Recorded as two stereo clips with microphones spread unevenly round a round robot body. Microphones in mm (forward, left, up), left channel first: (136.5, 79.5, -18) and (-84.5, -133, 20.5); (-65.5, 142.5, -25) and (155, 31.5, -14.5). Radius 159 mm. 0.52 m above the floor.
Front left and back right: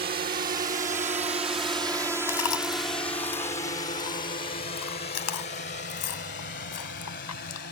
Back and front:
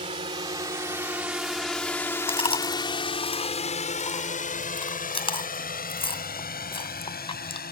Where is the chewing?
85° left.